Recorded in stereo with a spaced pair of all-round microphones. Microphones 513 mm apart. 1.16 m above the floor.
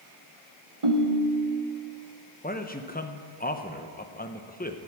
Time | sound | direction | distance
0.8 | a ringtone | 70° right (ahead or behind) | 1.1 m
2.4 | a man speaking | 15° left (ahead or behind) | 0.8 m